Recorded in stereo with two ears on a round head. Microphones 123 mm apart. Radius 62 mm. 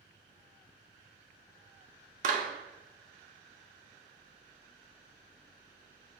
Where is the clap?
60° right (ahead or behind), 1.3 m.